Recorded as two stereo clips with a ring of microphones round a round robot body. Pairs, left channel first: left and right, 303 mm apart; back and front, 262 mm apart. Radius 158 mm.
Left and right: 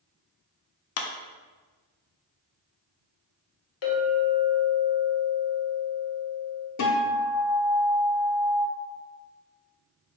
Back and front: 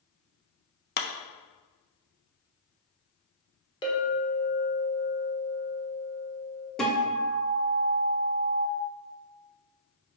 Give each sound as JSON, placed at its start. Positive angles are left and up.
{"t": 1.0, "sound": "a clap", "azimuth_deg": 125, "distance_m": 0.6}
{"t": 3.8, "sound": "a clink", "azimuth_deg": 110, "distance_m": 1.3}
{"t": 6.8, "sound": "a guitar", "azimuth_deg": 95, "distance_m": 0.8}